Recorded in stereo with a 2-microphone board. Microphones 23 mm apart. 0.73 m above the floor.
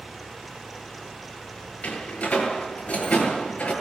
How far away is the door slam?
About 8.5 m.